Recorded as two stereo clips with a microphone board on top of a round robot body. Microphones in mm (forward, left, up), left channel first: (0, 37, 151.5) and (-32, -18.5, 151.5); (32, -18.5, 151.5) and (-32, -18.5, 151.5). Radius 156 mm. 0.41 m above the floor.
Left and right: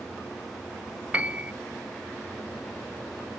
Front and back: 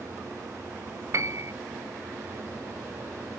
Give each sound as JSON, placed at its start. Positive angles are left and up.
{"t": 1.1, "sound": "a piano", "azimuth_deg": 175, "distance_m": 0.6}